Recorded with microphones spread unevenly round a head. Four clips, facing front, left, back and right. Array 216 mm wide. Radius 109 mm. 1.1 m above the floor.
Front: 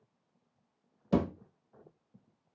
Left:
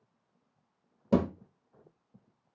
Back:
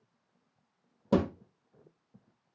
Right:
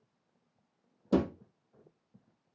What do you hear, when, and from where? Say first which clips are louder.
1.1 s a thud: left 1 dB, back 2 dB; 145° left, 1.5 m